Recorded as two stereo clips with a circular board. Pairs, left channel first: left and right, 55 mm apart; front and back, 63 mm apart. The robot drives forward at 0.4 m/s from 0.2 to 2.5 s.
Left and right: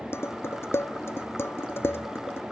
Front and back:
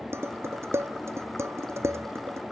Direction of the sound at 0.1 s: 130° left.